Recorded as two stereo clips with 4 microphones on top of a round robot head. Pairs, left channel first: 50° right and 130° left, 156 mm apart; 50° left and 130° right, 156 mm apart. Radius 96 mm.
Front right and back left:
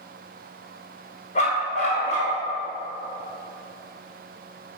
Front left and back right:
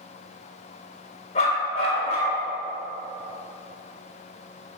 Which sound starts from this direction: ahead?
A dog barking, at 1.4 s.